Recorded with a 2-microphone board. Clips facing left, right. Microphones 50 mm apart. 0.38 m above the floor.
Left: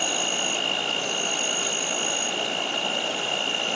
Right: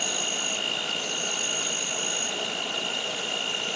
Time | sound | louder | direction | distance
0.0 | an insect | left 4 dB | 45° left (ahead or behind) | 1.0 m